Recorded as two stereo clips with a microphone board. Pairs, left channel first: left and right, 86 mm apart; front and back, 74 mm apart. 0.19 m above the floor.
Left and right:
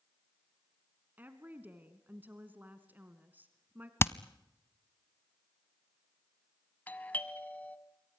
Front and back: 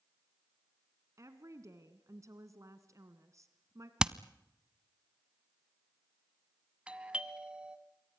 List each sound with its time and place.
1.2 s a woman speaking: 155° right, 1.6 m
4.0 s hammering: 110° left, 0.6 m
6.9 s a doorbell: 130° left, 1.5 m